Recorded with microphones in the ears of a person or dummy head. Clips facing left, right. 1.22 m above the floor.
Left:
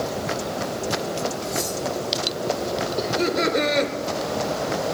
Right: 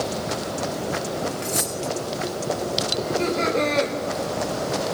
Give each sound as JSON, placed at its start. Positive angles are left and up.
{"t": 1.4, "sound": "cutlery clinking", "side_deg": -20, "distance_m": 1.6}
{"t": 3.0, "sound": "laughter", "side_deg": 25, "distance_m": 3.0}